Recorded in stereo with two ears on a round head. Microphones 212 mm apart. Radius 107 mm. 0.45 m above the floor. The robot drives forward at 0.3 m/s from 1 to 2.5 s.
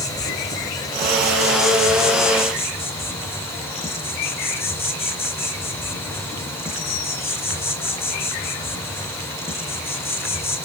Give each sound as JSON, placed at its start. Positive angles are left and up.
{"t": 0.0, "sound": "an insect", "side_deg": 15, "distance_m": 1.1}